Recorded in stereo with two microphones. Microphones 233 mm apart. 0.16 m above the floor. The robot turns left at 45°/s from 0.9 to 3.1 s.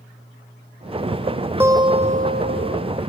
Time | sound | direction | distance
1.6 | a guitar | 10° right | ?